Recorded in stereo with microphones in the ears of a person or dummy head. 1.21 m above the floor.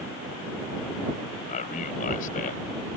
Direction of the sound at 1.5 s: 45° left (ahead or behind).